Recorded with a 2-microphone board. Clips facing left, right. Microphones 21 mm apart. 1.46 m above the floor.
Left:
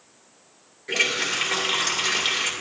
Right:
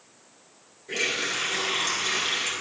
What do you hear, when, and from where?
0.9 s a running tap: 75° left (ahead or behind), 3 m